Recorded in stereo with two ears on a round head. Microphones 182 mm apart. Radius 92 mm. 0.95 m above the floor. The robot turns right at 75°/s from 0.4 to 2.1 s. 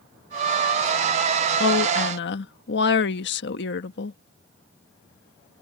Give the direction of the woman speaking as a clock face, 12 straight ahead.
10 o'clock.